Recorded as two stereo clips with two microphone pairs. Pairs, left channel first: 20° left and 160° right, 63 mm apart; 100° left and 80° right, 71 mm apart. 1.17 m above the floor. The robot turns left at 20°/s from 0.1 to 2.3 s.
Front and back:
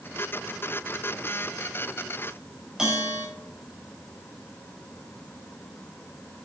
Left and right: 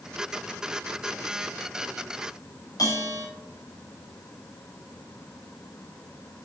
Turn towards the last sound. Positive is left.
turn(degrees=125)